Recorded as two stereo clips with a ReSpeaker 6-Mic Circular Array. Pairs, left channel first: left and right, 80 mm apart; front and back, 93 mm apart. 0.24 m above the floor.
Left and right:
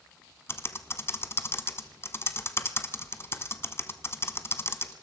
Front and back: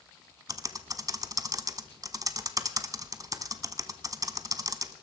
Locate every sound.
0.5 s typing on a keyboard: 140° left, 0.8 m